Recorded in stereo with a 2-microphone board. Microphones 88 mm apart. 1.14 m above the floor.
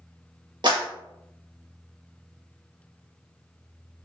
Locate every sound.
0.6 s a clap: 55° right (ahead or behind), 1.4 m